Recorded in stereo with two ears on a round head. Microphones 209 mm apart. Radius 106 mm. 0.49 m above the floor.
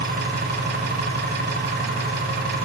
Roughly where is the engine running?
Right.